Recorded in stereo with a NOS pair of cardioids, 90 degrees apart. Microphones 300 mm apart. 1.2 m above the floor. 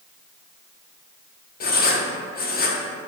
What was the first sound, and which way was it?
Writing, 30° left.